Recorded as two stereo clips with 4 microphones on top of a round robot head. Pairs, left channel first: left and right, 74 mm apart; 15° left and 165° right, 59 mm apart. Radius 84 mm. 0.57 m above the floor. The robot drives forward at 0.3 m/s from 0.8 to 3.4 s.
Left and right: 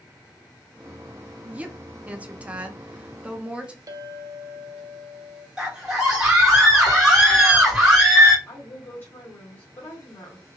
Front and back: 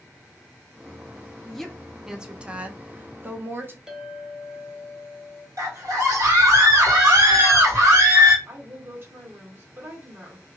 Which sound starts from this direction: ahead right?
A woman speaking, at 1.4 s.